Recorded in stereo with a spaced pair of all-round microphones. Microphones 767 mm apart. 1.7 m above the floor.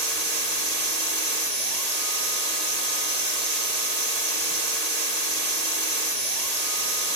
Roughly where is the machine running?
Right.